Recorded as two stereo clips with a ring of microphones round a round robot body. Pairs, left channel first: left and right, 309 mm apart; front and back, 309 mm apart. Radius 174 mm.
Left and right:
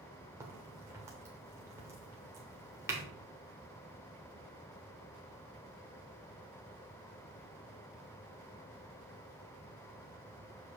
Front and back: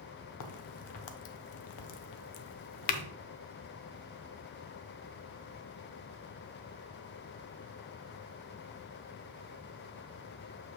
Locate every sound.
0.4 s a crack: 10° right, 0.7 m